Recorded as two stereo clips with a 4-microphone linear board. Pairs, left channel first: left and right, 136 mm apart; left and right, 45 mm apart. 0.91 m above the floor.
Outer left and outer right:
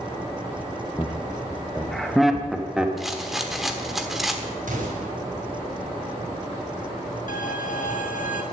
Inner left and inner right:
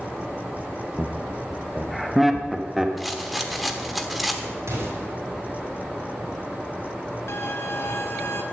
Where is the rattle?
Centre (ahead or behind), 1.2 m.